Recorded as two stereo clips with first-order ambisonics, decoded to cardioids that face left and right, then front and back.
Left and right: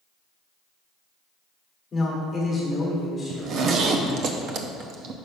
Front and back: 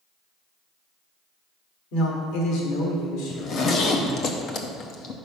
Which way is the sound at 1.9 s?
20° left.